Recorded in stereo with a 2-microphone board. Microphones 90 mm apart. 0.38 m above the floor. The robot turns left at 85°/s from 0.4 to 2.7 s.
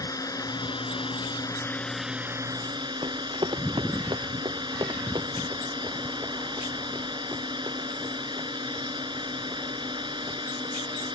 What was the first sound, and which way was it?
A drone, 40° left (ahead or behind).